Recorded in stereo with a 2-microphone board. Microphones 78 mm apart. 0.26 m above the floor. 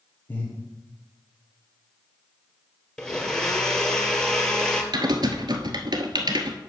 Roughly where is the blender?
Centre.